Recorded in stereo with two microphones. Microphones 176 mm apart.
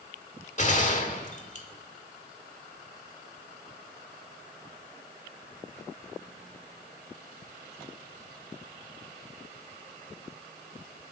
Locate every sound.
0.6 s a gunshot: 45° left (ahead or behind), 1.7 m